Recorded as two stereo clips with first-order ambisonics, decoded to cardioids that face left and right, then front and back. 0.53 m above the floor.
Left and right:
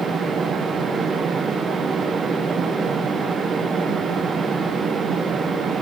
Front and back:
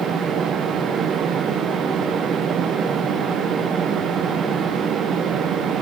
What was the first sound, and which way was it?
Only background noise.